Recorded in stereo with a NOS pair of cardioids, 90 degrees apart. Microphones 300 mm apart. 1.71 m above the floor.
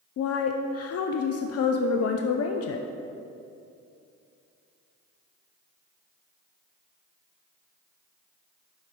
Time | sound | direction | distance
0.2 | a woman speaking | 55° left | 0.5 m